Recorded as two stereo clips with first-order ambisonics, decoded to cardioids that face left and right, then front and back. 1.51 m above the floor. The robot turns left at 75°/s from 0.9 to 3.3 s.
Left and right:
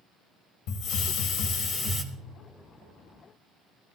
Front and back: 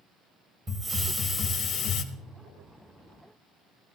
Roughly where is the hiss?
Left.